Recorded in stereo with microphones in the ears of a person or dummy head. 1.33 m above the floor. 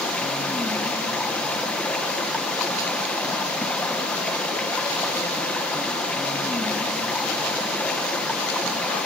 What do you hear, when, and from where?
0.0 s running water: 10° left (ahead or behind), 1.0 m